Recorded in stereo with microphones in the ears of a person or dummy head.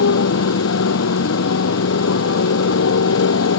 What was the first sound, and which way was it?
A motorcycle, 75° left (ahead or behind).